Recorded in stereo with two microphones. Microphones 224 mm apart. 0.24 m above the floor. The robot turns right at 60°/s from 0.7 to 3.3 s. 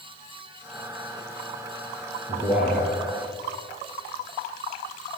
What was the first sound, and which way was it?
A man speaking, 20° right.